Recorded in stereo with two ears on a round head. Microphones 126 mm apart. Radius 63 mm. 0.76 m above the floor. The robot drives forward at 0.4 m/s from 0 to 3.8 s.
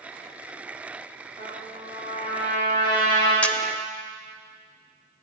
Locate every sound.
1.4 s a trumpet: 45° left (ahead or behind), 4.5 m; by 3.3 s 35° left (ahead or behind), 5 m
3.4 s a camera shutter: 10° left (ahead or behind), 0.6 m